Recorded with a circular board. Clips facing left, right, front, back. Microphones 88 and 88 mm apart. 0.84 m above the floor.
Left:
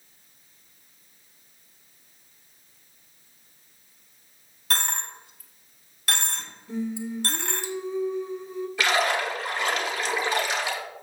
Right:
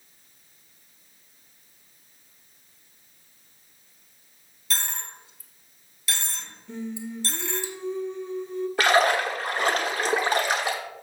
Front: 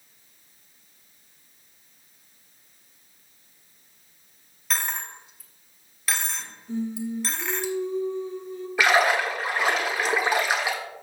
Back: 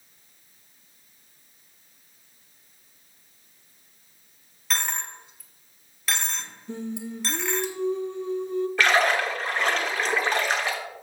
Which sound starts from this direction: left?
A dropped coin, at 4.7 s.